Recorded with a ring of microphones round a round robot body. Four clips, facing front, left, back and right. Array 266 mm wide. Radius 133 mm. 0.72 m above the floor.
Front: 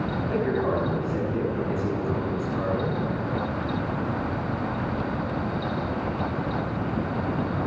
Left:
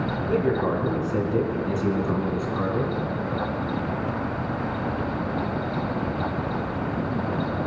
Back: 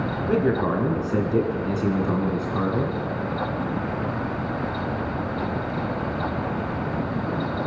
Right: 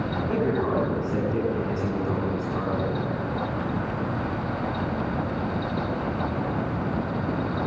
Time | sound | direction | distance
0.3 | a man speaking | straight behind | 8.5 m